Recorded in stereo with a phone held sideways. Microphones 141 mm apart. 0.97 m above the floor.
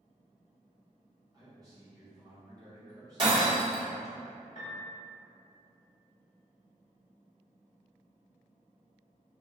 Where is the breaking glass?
35° right (ahead or behind), 1.4 m.